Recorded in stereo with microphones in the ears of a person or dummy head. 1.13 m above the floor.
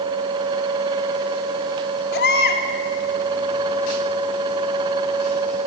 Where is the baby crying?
60° left (ahead or behind), 2.5 m.